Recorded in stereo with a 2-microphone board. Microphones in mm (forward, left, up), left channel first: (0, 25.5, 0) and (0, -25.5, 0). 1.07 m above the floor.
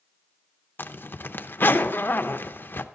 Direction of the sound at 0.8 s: 45° left (ahead or behind).